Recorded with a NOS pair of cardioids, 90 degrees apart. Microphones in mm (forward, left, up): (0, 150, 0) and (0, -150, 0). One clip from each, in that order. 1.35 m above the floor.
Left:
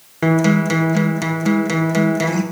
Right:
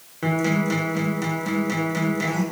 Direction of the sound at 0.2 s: 50° left.